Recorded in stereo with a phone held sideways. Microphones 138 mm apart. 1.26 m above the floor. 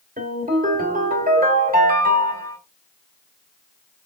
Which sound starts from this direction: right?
A ringtone, at 0.2 s.